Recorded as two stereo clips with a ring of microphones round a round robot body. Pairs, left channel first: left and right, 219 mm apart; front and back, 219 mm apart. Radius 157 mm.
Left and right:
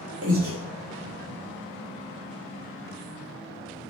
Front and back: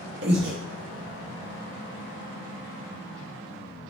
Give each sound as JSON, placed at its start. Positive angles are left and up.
{"t": 0.2, "sound": "breathing", "azimuth_deg": -130, "distance_m": 0.9}